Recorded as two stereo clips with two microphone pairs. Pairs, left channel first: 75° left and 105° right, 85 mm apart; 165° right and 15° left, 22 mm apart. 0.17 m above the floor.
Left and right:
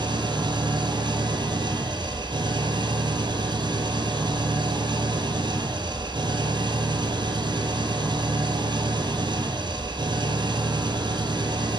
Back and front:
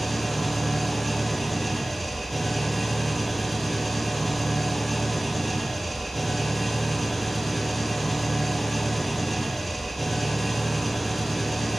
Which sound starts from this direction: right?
An engine running, at 0.0 s.